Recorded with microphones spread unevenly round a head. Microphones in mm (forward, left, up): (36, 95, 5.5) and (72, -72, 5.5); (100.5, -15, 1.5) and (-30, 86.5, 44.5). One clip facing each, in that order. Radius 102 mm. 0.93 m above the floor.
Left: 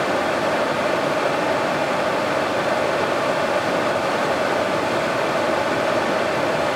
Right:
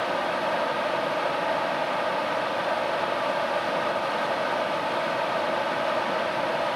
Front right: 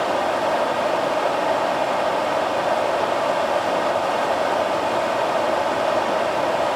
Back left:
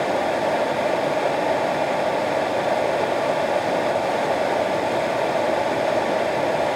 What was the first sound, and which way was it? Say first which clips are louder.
Running water: left 7 dB, even; 65° left.